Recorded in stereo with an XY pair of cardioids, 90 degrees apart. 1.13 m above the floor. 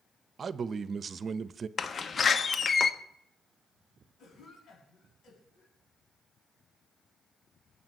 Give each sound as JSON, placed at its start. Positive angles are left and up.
{"t": 0.4, "sound": "a man speaking", "azimuth_deg": -50, "distance_m": 0.9}
{"t": 1.8, "sound": "a door slam", "azimuth_deg": 45, "distance_m": 1.1}
{"t": 4.2, "sound": "a cough", "azimuth_deg": 70, "distance_m": 7.0}